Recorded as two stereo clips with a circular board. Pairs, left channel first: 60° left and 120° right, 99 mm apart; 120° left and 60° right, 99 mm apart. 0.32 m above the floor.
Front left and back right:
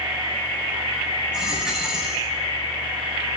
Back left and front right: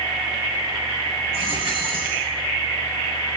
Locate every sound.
1.3 s a dropped coin: 35° right, 7 m